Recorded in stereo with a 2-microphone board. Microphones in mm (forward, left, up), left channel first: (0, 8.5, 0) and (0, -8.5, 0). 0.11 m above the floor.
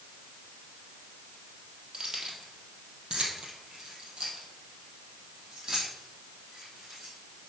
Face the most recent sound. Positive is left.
turn(degrees=-40)  # may be behind; listen again after turning